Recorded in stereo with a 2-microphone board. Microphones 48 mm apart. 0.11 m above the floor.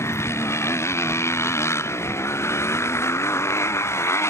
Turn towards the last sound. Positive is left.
turn(degrees=65)  # may be behind; listen again after turning